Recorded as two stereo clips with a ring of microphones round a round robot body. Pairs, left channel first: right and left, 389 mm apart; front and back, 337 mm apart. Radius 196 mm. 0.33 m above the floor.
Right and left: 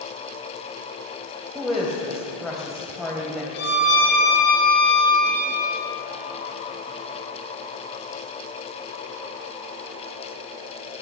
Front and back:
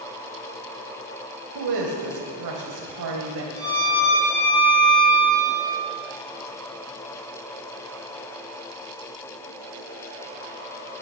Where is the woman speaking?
Straight behind, 2 m.